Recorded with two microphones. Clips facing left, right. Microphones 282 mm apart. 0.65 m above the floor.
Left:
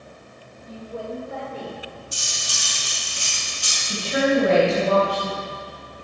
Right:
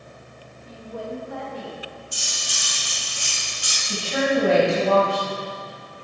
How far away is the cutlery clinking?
About 4 m.